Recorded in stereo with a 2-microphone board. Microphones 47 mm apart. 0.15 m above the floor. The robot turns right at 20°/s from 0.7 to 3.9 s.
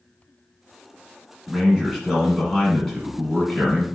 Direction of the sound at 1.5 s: 10° right (ahead or behind).